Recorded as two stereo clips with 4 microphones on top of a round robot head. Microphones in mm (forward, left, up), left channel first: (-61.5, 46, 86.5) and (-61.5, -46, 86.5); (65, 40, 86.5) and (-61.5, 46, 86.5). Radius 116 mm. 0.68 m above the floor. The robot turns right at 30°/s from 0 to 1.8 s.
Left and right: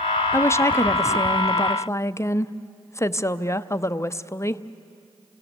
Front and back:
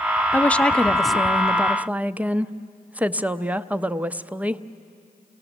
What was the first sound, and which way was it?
A woman speaking, 65° left.